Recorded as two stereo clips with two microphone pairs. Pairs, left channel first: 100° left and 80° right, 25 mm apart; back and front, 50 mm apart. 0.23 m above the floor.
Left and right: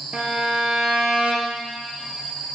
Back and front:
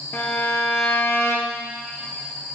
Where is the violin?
135° right, 1.6 m.